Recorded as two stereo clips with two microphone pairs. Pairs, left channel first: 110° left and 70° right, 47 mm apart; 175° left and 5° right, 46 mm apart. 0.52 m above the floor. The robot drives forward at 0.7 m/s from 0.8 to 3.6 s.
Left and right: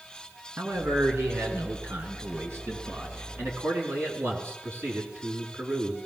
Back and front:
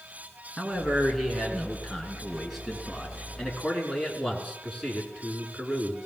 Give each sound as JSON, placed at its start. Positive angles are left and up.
{"t": 0.6, "sound": "a man speaking", "azimuth_deg": -85, "distance_m": 6.0}